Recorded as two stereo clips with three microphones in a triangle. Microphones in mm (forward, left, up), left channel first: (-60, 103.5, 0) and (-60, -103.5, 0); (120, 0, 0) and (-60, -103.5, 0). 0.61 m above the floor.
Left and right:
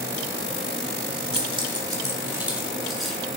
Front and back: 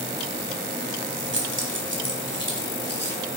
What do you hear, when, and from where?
1.3 s keys jangling: 150° right, 1.4 m; by 3.2 s straight behind, 2 m